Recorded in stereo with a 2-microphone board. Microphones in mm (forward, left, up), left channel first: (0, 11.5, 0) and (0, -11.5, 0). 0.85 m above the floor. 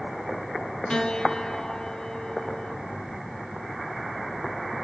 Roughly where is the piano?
Left.